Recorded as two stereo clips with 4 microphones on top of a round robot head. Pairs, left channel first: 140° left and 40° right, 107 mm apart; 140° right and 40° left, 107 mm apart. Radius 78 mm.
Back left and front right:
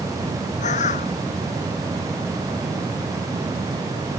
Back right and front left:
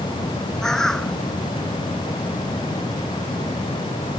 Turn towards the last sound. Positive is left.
turn(degrees=135)